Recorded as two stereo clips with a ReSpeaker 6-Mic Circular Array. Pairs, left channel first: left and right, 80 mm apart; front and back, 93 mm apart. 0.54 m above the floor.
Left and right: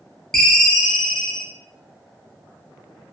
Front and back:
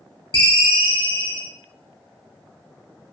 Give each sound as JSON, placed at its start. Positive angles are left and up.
{"t": 0.3, "sound": "a ringtone", "azimuth_deg": 5, "distance_m": 0.5}